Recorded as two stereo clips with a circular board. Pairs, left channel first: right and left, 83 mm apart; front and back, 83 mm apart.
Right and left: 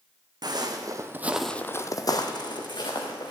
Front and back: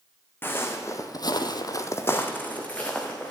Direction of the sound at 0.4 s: 65° left.